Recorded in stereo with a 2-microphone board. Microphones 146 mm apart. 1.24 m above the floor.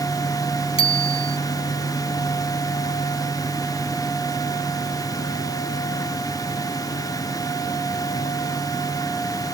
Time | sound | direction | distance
0.8 | a bicycle bell | 40° left (ahead or behind) | ?